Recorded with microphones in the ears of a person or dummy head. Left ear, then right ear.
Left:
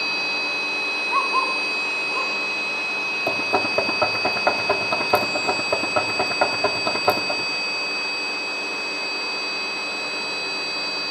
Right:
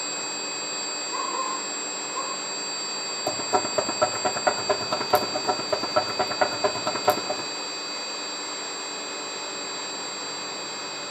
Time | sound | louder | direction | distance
1.1 | a dog barking | left 8 dB | 40° left (ahead or behind) | 5.5 m
3.3 | knocking | left 2 dB | centre (ahead or behind) | 1.8 m